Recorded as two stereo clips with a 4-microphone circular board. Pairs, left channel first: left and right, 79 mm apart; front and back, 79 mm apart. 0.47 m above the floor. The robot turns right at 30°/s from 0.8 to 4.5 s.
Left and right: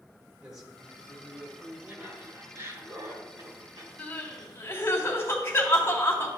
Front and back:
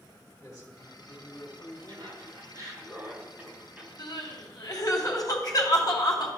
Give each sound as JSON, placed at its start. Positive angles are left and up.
{"t": 0.4, "sound": "a man speaking", "azimuth_deg": -20, "distance_m": 1.4}
{"t": 1.9, "sound": "laughter", "azimuth_deg": -160, "distance_m": 2.5}
{"t": 4.0, "sound": "crying", "azimuth_deg": 20, "distance_m": 1.3}